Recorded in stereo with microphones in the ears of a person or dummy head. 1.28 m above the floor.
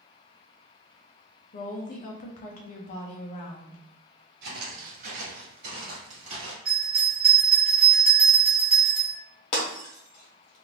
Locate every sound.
1.5 s a woman speaking: 45° left (ahead or behind), 0.8 m
4.4 s footsteps: 45° right (ahead or behind), 1.8 m; by 6.5 s 30° right (ahead or behind), 1.6 m
6.7 s a bell: 10° right (ahead or behind), 1.2 m
9.5 s breaking glass: 35° left (ahead or behind), 1.0 m